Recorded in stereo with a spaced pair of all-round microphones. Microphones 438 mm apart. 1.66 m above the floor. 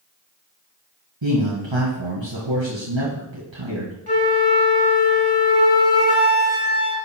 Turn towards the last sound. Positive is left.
turn(degrees=55)  # may be behind; listen again after turning